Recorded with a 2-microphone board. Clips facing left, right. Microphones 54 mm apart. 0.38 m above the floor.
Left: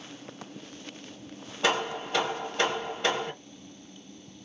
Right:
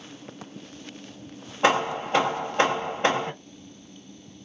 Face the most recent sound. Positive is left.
turn(degrees=-35)  # may be behind; listen again after turning